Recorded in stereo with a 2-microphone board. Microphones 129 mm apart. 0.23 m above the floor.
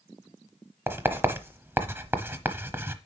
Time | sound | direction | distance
0.9 | writing | 15° right (ahead or behind) | 0.9 m